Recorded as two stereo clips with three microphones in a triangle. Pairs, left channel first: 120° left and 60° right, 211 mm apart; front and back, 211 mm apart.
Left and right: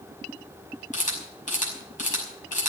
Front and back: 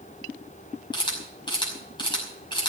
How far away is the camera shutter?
About 5.5 m.